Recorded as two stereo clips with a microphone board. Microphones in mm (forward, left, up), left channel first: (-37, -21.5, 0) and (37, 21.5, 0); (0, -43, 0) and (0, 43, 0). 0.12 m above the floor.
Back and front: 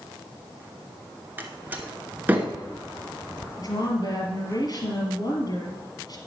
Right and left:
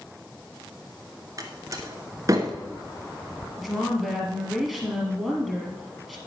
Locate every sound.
1.4 s a door slam: 90° left, 1.1 m
3.6 s a woman speaking: straight behind, 2 m